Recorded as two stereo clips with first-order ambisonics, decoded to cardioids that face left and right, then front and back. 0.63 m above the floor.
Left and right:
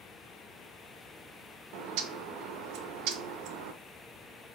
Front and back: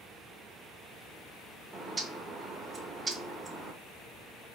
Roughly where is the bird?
Right.